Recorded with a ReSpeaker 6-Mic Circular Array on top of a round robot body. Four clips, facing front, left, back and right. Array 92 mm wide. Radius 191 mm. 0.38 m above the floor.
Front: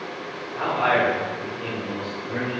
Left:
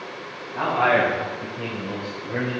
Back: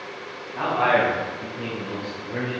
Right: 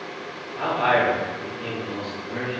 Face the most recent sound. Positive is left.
turn(degrees=85)